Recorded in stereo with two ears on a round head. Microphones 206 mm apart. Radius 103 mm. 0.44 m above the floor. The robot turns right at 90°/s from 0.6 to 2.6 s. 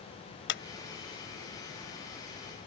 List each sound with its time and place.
0.5 s a clap: 55° left (ahead or behind)